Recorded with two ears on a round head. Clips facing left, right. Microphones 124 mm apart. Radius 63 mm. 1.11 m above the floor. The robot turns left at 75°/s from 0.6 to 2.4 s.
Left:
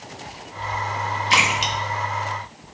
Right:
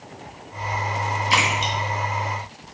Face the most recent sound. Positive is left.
turn(degrees=55)  # may be behind; listen again after turning